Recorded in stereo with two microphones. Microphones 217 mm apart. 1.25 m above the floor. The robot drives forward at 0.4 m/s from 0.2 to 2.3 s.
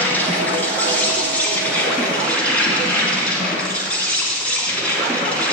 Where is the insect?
10° left (ahead or behind), 1.9 m; by 5.5 s 5° left (ahead or behind), 2.5 m.